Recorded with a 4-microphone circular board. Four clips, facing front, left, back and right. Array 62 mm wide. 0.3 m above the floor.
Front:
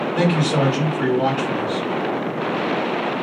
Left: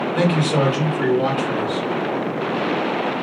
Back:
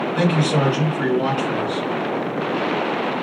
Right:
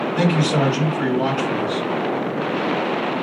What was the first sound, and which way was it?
A man speaking, 105° left.